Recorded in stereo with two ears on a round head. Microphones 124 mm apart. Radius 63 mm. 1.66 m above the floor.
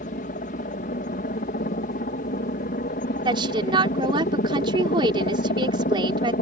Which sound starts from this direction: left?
A helicopter, at 0.0 s.